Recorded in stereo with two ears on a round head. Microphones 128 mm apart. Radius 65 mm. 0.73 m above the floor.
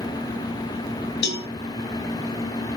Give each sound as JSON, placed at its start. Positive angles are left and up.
{"t": 1.2, "sound": "a cowbell", "side_deg": 85, "distance_m": 2.0}